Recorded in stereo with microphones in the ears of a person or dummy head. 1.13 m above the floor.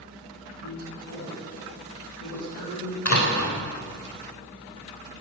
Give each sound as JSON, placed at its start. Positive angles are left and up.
{"t": 0.6, "sound": "a woman speaking", "side_deg": 75, "distance_m": 7.5}
{"t": 3.0, "sound": "a door slam", "side_deg": 85, "distance_m": 3.5}